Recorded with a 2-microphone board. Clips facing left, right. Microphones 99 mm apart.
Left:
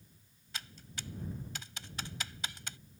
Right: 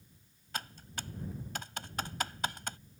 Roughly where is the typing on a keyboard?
Right.